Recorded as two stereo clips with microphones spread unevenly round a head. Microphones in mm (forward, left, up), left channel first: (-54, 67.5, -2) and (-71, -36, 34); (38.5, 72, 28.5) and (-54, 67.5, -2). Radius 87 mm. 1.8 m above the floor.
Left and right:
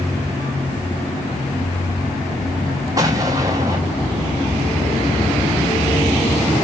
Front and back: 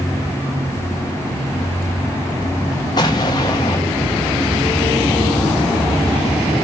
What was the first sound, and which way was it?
An explosion, 45° right.